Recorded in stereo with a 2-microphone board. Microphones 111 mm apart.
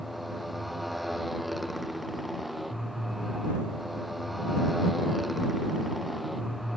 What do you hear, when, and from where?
0.0 s a motorcycle: centre (ahead or behind)